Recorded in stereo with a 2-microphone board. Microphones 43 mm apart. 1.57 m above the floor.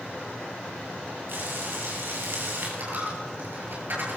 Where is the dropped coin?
50° right (ahead or behind), 9.5 m.